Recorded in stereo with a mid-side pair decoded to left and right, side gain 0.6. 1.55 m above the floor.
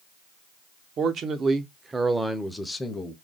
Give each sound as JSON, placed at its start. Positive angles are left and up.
{"t": 1.0, "sound": "a man speaking", "azimuth_deg": -50, "distance_m": 1.1}